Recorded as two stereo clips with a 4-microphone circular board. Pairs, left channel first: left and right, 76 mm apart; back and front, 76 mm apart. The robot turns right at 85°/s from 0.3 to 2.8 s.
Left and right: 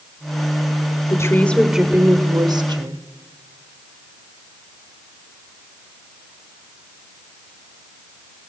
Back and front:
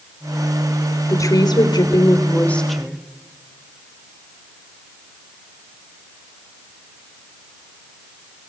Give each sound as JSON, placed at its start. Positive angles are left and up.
{"t": 1.1, "sound": "a woman speaking", "azimuth_deg": 130, "distance_m": 3.0}